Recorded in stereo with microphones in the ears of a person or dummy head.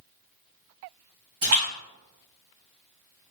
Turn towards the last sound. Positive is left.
turn(degrees=-50)  # may be behind; listen again after turning